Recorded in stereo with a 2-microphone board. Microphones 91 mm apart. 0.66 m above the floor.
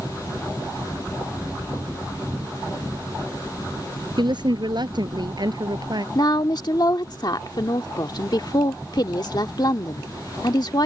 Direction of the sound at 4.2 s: 55° right (ahead or behind).